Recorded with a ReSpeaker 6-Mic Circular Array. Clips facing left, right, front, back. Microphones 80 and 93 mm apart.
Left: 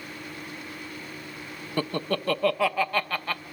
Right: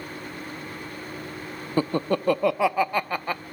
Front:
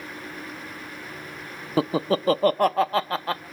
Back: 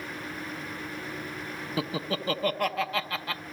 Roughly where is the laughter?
Ahead right.